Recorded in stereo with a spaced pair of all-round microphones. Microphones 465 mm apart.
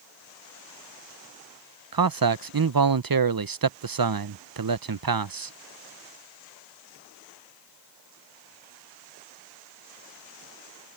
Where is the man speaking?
50° right (ahead or behind).